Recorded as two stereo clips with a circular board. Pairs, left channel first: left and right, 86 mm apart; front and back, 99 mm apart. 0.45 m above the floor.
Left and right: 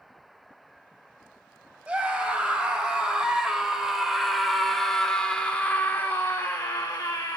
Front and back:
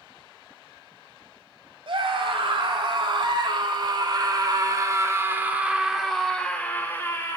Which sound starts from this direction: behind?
A scream, at 1.9 s.